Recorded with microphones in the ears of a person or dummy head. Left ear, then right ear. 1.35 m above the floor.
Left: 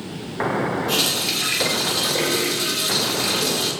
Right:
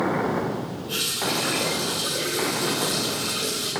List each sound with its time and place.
0.9 s a running tap: 75° left (ahead or behind), 3.5 m